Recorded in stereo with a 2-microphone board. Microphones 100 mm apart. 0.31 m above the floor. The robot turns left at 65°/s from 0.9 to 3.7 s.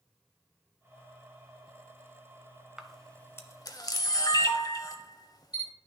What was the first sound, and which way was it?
A camera shutter, 5° right (ahead or behind).